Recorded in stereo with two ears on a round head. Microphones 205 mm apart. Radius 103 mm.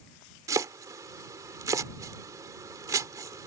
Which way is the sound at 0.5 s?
15° right (ahead or behind).